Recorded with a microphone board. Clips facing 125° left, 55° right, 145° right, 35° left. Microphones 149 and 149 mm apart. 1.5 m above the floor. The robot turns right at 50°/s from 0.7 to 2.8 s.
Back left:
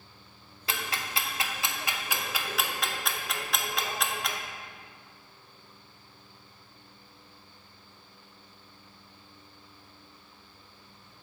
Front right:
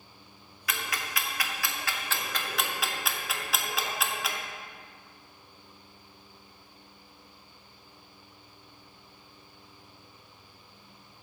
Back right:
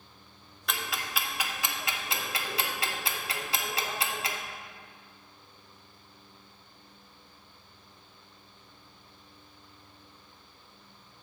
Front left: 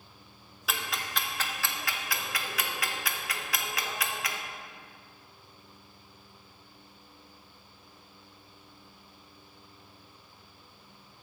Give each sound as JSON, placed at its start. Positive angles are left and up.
{"t": 0.7, "sound": "ticking", "azimuth_deg": 115, "distance_m": 0.7}